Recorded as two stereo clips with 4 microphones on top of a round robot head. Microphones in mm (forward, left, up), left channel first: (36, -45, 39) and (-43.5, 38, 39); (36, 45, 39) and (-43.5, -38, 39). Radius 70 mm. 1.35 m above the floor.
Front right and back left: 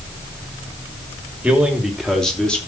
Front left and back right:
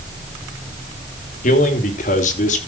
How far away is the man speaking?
About 3 m.